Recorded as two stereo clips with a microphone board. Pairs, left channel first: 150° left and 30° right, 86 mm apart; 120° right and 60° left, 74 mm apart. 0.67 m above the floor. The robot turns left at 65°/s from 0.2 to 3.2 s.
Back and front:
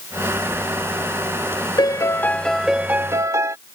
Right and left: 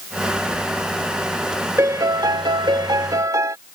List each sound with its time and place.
1.8 s a piano: 115° left; by 3.6 s 20° left